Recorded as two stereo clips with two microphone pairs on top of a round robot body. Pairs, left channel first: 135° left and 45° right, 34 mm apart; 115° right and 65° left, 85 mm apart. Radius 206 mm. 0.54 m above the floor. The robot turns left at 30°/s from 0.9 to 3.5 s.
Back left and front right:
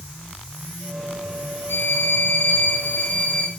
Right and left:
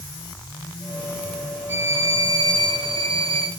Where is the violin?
130° left, 0.6 m; by 3.5 s 75° left, 0.6 m.